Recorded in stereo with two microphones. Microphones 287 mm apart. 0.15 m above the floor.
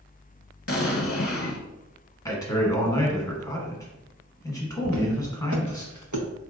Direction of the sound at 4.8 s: 65° right (ahead or behind).